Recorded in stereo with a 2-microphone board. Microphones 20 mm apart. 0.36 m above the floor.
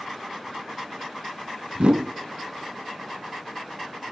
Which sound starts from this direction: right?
A whoosh, at 1.8 s.